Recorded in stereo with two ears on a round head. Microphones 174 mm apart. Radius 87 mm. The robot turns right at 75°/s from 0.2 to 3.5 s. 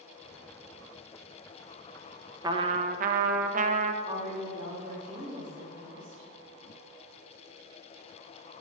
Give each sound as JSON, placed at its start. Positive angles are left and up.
{"t": 2.4, "sound": "a trumpet", "azimuth_deg": -150, "distance_m": 0.5}
{"t": 4.0, "sound": "a woman speaking", "side_deg": -35, "distance_m": 2.5}